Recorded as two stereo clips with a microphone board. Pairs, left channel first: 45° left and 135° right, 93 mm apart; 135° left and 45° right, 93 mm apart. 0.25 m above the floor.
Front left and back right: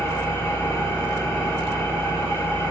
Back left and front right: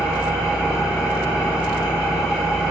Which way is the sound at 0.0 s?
25° left.